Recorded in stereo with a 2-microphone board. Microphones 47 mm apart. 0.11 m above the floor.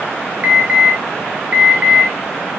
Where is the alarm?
35° right (ahead or behind), 1.6 m.